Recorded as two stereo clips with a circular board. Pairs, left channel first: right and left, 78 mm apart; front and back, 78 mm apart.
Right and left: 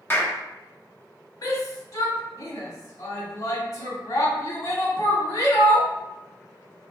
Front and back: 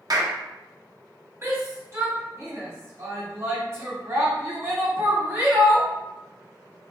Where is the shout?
125° right, 2 m.